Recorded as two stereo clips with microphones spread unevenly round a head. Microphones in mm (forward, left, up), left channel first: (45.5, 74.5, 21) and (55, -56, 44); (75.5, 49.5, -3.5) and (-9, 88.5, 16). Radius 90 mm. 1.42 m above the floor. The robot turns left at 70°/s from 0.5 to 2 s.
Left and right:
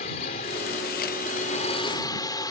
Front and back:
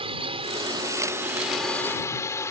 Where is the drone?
140° left; by 2.5 s 35° left.